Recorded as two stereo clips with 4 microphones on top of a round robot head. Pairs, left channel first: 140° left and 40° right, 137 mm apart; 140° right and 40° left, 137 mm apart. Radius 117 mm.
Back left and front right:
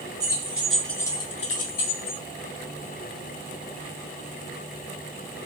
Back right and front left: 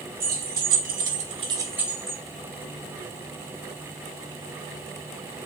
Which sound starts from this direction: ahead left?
Keys jangling, at 0.2 s.